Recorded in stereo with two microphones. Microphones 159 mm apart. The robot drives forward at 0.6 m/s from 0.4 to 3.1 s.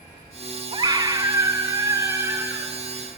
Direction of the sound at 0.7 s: 30° right (ahead or behind).